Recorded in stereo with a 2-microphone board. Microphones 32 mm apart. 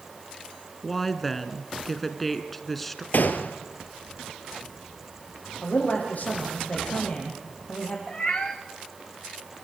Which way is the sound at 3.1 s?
75° left (ahead or behind).